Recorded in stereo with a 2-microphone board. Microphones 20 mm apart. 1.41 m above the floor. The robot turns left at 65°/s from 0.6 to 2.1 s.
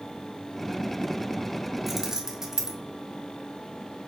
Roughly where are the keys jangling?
Centre.